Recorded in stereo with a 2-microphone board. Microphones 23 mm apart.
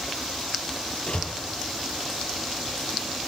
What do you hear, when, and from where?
1.1 s a door slam: 55° left (ahead or behind), 7.5 m